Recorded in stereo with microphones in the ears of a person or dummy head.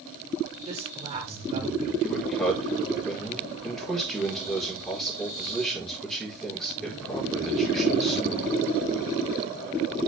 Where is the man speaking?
Centre (ahead or behind), 4.5 m.